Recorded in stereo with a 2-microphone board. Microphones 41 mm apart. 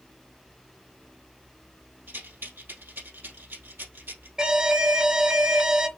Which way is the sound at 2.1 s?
55° right (ahead or behind).